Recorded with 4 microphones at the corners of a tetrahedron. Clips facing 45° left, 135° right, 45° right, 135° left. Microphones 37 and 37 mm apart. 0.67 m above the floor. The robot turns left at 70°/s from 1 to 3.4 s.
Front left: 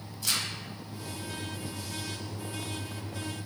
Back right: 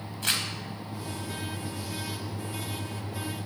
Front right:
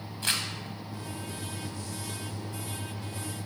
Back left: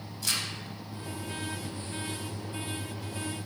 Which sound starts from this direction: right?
Crumpling, at 0.2 s.